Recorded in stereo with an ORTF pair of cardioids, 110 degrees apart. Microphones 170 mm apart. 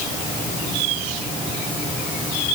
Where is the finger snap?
I don't hear a finger snap.